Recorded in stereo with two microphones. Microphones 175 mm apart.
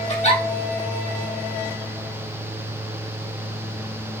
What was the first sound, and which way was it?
A giggle, 40° left (ahead or behind).